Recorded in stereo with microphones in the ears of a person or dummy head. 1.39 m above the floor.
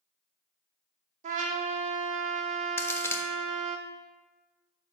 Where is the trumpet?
40° right (ahead or behind), 0.9 m.